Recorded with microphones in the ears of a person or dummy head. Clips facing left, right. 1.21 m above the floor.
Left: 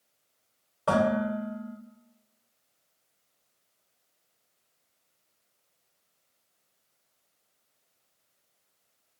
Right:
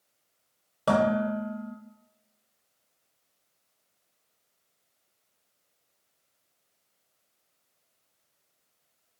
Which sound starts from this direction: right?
Dishes clattering, at 0.9 s.